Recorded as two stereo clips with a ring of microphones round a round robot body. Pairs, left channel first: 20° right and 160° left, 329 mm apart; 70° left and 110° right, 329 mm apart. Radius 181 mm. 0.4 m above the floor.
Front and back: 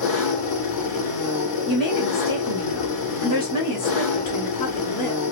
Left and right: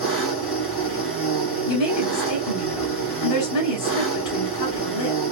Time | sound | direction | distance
0.0 | an engine running | 15° left | 2.5 m
1.7 | a woman speaking | 45° left | 2.5 m